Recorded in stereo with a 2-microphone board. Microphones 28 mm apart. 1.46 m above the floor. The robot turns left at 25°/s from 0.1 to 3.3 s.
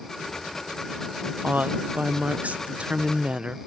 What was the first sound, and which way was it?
A woman speaking, 90° right.